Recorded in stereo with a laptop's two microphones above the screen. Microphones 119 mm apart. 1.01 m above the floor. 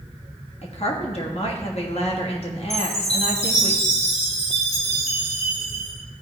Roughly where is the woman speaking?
Left.